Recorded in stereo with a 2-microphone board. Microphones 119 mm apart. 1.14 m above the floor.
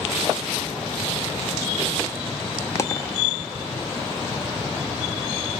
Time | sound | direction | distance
2.8 | a dropped coin | 25° left (ahead or behind) | 0.5 m